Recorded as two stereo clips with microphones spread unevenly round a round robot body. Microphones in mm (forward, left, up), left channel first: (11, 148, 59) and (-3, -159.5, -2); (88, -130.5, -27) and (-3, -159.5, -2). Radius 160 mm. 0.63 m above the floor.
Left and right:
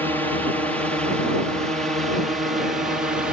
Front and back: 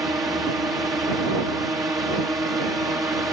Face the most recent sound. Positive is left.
turn(degrees=-140)